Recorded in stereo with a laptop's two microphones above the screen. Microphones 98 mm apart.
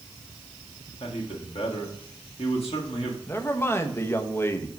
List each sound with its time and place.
1.0 s a man speaking: 85° left, 1.5 m
3.3 s a man speaking: 25° left (ahead or behind), 0.9 m